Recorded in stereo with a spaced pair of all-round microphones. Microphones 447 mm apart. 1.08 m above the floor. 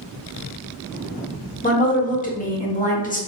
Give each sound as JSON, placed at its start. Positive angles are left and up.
{"t": 1.6, "sound": "a woman speaking", "side_deg": 20, "distance_m": 0.7}